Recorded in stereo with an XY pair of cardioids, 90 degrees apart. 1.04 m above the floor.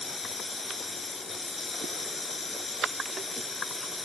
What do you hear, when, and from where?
0.0 s running water: 25° left